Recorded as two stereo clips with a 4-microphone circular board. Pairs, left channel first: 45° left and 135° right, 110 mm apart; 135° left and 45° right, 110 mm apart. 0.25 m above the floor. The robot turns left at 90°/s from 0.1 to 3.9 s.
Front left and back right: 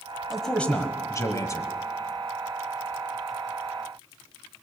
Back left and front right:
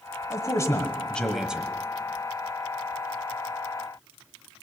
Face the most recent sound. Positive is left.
turn(degrees=175)